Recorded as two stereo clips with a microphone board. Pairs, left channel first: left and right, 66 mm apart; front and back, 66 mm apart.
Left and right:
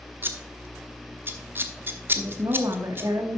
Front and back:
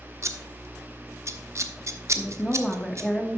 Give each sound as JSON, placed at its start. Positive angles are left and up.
{"t": 0.2, "sound": "scissors", "azimuth_deg": -140, "distance_m": 0.8}
{"t": 2.1, "sound": "a woman speaking", "azimuth_deg": -80, "distance_m": 1.4}